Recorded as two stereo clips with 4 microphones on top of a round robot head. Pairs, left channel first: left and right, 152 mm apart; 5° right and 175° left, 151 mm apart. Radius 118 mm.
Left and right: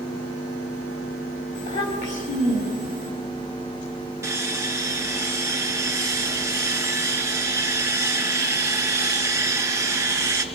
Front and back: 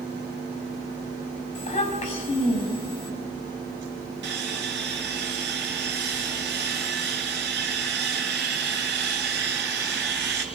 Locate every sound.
1.6 s a child speaking: 45° left, 4.5 m
4.2 s sawing: 160° right, 2.5 m